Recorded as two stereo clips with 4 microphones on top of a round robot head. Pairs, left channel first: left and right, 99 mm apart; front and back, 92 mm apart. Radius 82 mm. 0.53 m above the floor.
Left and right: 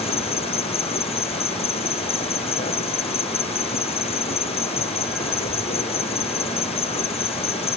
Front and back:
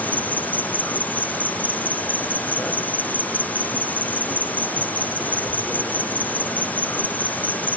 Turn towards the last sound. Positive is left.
turn(degrees=75)